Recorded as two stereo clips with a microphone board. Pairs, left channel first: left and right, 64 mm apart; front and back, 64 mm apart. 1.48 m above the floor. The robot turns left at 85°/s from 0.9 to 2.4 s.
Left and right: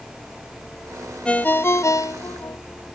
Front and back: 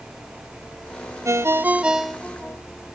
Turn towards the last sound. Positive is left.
turn(degrees=65)